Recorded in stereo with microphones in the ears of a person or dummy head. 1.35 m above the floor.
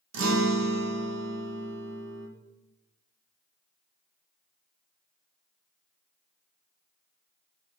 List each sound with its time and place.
0.1 s a guitar: 65° right (ahead or behind), 1.1 m